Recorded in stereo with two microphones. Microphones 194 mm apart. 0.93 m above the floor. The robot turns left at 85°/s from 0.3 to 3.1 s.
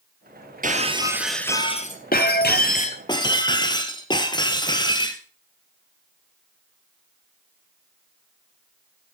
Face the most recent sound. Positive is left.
turn(degrees=25)